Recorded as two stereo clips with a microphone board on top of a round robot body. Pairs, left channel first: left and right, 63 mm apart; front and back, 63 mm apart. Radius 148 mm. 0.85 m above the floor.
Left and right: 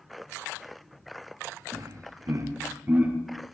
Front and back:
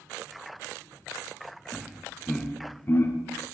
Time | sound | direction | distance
1.7 | laughter | 105° right | 1.5 m